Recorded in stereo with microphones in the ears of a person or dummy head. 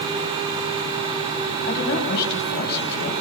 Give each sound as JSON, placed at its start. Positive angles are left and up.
{"t": 1.6, "sound": "a woman speaking", "side_deg": 60, "distance_m": 9.5}